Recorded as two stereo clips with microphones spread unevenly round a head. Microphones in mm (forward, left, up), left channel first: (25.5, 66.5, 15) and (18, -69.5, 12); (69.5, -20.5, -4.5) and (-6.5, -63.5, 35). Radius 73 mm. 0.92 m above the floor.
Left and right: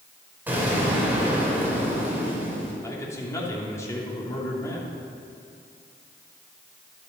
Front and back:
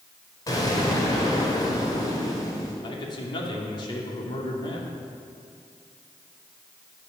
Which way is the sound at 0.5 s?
15° right.